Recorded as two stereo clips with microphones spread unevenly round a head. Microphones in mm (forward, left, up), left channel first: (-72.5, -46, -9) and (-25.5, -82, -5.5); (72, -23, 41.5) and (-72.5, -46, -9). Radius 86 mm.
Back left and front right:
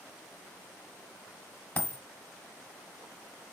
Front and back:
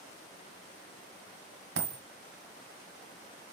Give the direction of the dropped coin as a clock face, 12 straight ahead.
5 o'clock.